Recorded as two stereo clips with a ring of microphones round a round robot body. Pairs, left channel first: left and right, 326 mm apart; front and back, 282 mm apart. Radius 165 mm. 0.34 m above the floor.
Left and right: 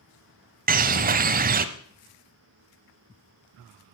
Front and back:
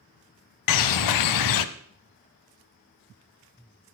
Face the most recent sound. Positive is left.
turn(degrees=-25)